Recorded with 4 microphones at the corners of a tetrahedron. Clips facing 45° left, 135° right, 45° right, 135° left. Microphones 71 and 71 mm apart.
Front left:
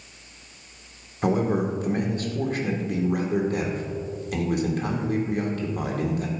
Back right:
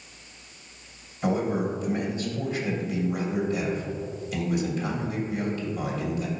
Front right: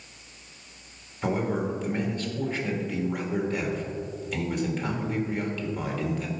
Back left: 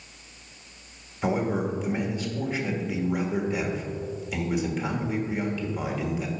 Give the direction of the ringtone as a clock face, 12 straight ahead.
No ringtone in this recording.